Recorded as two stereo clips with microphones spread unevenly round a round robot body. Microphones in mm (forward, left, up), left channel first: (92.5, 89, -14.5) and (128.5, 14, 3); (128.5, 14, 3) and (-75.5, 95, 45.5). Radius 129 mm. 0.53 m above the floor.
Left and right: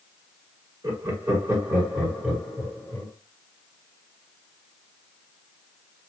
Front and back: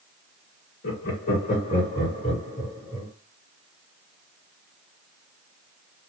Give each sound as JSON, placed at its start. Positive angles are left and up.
{"t": 0.8, "sound": "laughter", "azimuth_deg": -25, "distance_m": 1.6}